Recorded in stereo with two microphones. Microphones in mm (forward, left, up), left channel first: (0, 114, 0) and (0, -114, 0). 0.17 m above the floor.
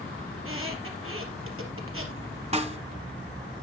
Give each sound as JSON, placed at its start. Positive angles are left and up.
{"t": 0.3, "sound": "a squeak", "side_deg": -70, "distance_m": 3.5}
{"t": 2.5, "sound": "a snare drum", "side_deg": -30, "distance_m": 1.3}